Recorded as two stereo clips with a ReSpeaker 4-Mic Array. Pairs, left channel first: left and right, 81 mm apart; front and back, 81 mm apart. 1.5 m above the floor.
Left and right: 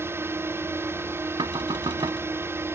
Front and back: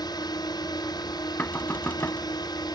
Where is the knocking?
65° right.